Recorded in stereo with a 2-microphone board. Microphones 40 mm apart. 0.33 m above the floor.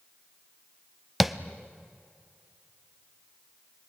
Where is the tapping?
5° right (ahead or behind), 0.8 m.